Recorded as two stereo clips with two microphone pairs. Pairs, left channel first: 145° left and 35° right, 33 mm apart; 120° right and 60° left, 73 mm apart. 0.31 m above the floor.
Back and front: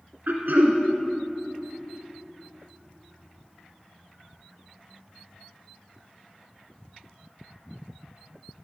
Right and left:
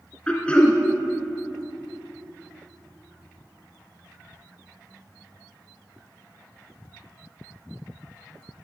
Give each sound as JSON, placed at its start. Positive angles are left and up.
{"t": 0.3, "sound": "throat clearing", "azimuth_deg": -50, "distance_m": 1.8}